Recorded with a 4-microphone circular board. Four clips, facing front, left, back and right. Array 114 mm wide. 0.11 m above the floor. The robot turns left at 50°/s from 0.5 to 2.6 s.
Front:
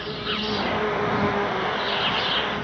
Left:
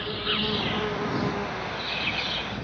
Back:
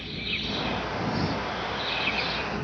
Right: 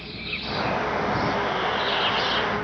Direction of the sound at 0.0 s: 30° left.